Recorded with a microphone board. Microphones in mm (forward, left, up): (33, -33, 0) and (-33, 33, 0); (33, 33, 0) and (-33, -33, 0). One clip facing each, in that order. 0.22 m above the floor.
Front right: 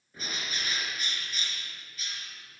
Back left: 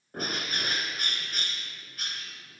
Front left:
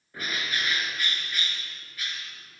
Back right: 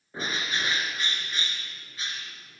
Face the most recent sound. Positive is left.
turn(degrees=160)